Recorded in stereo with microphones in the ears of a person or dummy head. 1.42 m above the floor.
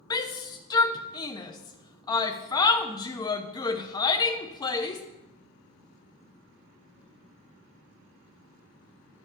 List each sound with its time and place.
0.1 s a shout: 20° left (ahead or behind), 0.5 m